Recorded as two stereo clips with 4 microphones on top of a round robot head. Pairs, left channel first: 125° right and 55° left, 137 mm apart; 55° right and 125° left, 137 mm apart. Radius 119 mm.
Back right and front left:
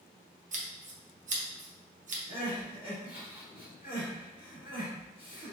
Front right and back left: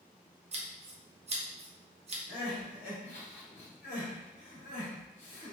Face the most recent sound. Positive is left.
turn(degrees=-15)